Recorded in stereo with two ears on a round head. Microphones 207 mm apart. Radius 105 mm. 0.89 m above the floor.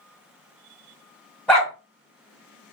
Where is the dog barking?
5° left (ahead or behind), 1.3 m.